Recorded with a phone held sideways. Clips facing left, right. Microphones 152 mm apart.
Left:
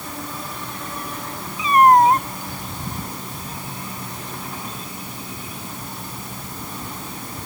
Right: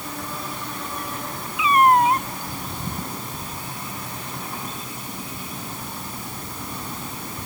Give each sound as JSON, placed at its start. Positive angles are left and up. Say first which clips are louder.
{"t": 1.6, "sound": "a cat meowing", "louder": "left 3 dB", "side_deg": 40}